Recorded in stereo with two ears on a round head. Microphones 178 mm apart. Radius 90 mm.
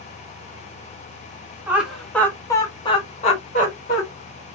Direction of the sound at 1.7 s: 10° right (ahead or behind).